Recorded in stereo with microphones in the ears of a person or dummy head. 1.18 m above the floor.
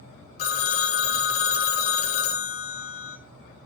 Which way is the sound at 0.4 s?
45° left (ahead or behind).